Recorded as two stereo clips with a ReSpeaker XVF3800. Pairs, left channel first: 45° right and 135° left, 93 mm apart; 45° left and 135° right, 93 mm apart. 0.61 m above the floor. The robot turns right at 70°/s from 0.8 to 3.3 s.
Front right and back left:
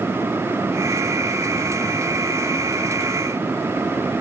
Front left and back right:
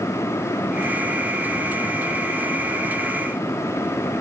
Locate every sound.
Only background noise.